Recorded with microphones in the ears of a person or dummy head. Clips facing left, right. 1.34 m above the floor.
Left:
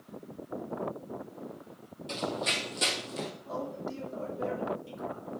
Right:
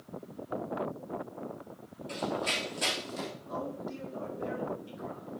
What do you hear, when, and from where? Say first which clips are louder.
2.1 s running footsteps: even; 55° left (ahead or behind), 2.5 m; by 3.3 s 35° left (ahead or behind), 2 m
3.5 s a man speaking: even; 85° left, 6 m